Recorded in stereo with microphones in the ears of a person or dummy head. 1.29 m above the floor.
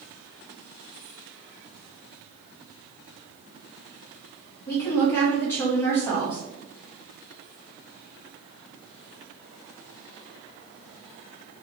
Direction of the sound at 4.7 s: 10° left (ahead or behind).